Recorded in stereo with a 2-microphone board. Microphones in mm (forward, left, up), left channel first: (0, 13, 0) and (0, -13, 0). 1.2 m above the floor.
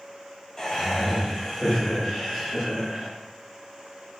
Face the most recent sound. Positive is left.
turn(degrees=0)  # may be behind; listen again after turning